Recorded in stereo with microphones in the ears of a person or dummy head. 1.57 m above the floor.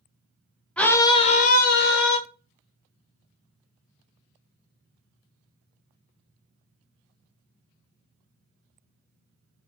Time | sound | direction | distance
0.8 | a scream | 5° left (ahead or behind) | 0.5 m